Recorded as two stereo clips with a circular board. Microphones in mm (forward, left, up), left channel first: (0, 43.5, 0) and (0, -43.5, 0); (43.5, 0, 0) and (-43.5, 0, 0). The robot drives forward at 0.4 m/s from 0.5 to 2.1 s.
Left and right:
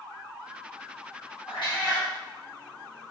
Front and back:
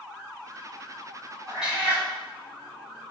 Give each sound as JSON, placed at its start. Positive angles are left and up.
{"t": 1.5, "sound": "a cat meowing", "azimuth_deg": 95, "distance_m": 1.0}